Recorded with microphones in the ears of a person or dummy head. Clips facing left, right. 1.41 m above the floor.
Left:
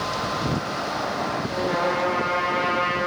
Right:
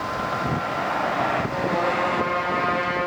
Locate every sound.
1.5 s a trumpet: centre (ahead or behind), 4.5 m